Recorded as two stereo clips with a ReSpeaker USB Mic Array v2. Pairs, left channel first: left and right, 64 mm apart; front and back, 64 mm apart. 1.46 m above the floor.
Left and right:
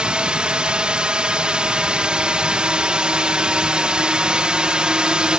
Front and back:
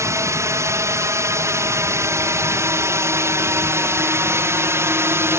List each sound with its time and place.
0.0 s a drone: 160° right